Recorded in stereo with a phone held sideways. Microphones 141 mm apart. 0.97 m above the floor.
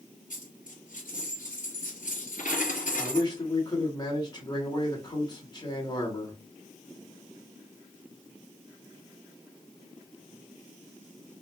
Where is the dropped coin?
70° left (ahead or behind), 1.9 m.